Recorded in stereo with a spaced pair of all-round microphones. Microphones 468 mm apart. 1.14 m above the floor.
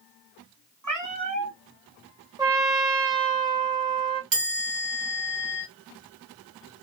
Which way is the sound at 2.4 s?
10° right (ahead or behind).